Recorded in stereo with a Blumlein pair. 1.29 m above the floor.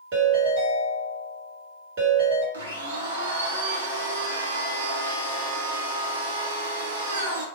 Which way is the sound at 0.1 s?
55° right.